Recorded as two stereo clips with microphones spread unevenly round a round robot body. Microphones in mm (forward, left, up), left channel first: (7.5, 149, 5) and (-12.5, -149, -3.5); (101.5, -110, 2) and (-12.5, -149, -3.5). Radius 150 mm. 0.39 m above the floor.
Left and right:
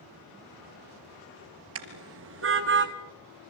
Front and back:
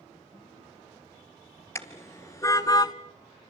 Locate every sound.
1.8 s a car horn: 50° right, 3 m; by 2.9 s 40° right, 1.4 m